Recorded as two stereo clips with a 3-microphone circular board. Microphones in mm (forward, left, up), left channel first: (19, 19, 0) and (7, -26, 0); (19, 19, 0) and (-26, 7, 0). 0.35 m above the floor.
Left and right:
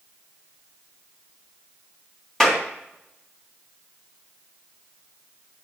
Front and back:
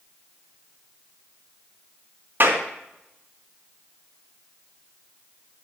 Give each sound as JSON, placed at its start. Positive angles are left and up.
{"t": 2.4, "sound": "a clap", "azimuth_deg": 155, "distance_m": 2.5}